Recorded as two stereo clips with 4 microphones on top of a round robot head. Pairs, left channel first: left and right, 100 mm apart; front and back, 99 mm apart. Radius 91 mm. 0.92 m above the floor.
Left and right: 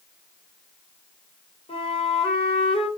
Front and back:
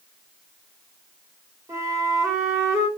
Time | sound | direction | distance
1.7 | a flute | 120° left | 3.5 m